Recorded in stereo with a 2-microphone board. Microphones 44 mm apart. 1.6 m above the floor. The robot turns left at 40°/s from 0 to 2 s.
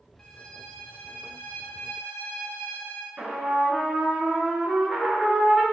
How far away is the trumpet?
About 0.7 m.